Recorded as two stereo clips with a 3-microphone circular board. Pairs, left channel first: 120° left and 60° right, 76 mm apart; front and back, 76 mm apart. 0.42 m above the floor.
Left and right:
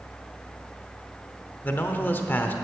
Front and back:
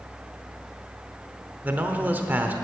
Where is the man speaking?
150° left, 1.0 m.